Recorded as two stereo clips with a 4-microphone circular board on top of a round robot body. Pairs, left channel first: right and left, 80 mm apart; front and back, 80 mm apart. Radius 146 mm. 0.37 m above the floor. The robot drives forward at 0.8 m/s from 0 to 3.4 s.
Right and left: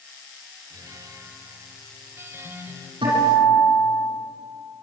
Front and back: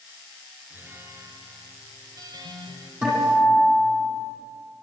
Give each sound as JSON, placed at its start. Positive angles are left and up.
{"t": 0.7, "sound": "a guitar", "azimuth_deg": 120, "distance_m": 1.8}
{"t": 3.0, "sound": "a guitar", "azimuth_deg": 105, "distance_m": 9.5}